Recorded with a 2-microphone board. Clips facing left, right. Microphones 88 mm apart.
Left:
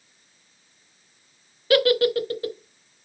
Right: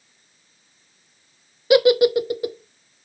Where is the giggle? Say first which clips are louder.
Right 4 dB; 15° right (ahead or behind), 0.5 m.